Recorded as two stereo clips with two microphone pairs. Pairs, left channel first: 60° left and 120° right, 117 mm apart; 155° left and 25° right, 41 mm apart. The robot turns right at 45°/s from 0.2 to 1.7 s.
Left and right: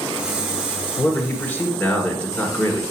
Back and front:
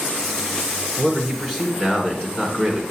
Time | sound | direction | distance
1.0 | a man speaking | 80° left | 1.8 m